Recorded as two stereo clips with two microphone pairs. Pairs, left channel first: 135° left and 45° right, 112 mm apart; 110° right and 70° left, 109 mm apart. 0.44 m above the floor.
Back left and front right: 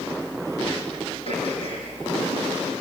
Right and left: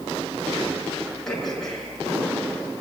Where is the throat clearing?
165° left, 6 m.